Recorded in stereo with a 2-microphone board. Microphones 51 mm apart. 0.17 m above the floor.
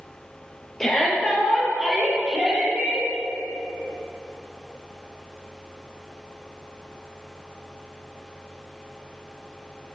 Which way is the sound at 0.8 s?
10° left (ahead or behind).